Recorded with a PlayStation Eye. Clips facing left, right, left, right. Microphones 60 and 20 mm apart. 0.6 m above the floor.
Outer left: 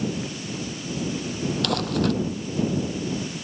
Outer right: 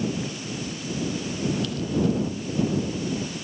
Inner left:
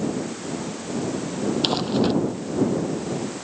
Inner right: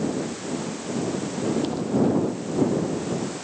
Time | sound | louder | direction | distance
1.6 | crumpling | outer left 4 dB, inner left 3 dB | 65° left (ahead or behind) | ?